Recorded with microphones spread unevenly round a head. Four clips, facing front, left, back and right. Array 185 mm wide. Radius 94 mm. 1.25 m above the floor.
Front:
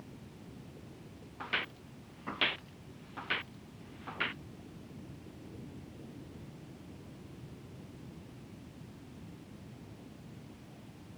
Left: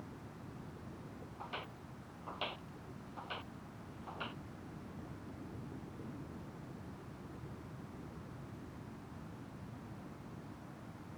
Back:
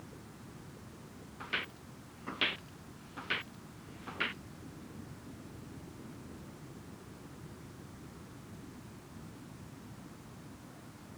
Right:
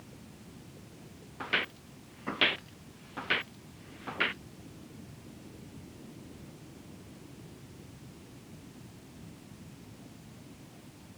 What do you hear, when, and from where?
1.4 s footsteps: 80° right; by 4.4 s 90° right